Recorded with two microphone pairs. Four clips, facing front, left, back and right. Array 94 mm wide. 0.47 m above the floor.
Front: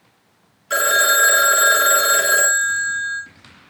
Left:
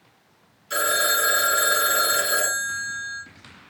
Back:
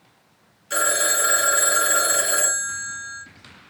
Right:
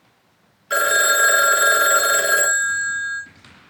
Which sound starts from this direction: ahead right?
A phone ringing, at 0.7 s.